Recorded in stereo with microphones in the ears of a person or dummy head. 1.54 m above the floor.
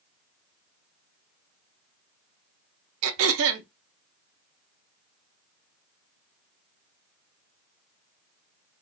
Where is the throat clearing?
75° right (ahead or behind), 0.5 m.